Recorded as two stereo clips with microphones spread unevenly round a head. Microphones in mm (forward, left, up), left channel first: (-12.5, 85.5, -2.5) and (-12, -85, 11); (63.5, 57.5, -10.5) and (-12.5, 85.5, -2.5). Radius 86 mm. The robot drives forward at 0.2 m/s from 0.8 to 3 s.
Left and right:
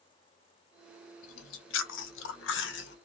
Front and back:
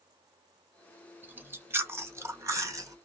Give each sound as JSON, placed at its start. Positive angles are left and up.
{"t": 1.2, "sound": "chewing", "azimuth_deg": 95, "distance_m": 1.0}